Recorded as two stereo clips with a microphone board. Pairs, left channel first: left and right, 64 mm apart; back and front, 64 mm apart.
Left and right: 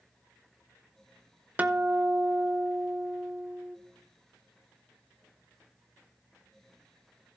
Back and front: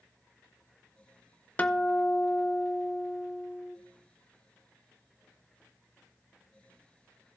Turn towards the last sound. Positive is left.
turn(degrees=-135)